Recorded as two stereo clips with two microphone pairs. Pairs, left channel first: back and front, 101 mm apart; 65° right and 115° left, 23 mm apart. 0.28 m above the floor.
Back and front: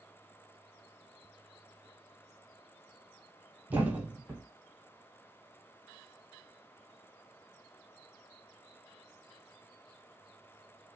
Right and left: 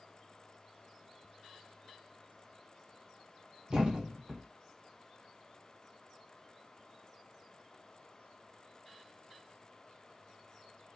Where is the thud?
70° left, 0.9 m.